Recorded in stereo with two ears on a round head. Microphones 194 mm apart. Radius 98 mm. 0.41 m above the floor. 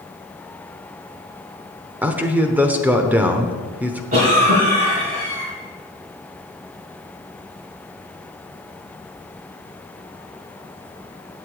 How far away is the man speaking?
About 0.9 m.